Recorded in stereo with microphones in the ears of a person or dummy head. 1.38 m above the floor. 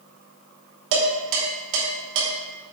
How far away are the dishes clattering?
About 3 m.